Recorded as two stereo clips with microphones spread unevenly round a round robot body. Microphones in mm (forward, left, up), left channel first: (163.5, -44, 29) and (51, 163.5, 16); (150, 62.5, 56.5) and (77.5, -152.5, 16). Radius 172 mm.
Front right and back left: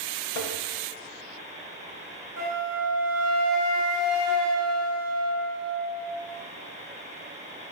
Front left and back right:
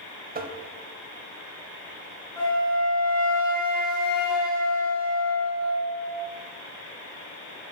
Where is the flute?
170° left, 2.5 m.